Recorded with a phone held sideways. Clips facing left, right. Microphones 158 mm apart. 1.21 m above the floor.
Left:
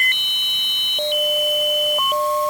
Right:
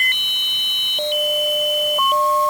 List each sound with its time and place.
Only background noise.